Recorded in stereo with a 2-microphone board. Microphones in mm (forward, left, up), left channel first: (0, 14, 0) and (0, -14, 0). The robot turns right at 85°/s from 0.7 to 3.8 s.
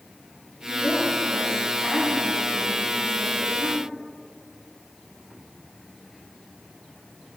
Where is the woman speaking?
60° left, 2 m; by 3.9 s 40° right, 2 m.